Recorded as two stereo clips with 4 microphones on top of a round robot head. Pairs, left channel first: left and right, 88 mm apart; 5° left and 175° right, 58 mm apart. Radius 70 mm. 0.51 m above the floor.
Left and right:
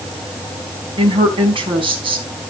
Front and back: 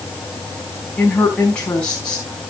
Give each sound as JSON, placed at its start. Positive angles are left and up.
{"t": 1.0, "sound": "a woman speaking", "azimuth_deg": -70, "distance_m": 4.0}